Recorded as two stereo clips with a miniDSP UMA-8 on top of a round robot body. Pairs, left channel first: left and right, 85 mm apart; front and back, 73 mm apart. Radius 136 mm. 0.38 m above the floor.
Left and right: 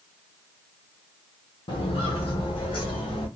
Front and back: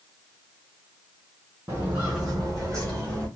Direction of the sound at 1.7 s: 115° left.